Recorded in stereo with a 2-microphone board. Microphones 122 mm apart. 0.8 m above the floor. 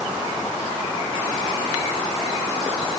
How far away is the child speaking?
No child speaking in this recording.